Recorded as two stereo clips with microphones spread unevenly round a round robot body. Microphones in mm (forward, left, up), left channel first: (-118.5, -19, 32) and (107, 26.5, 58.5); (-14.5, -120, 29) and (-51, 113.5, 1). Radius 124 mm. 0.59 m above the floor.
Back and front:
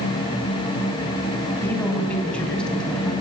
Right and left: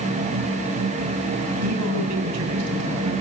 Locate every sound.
1.6 s a man speaking: 110° left, 4 m; by 3.1 s 105° left, 5.5 m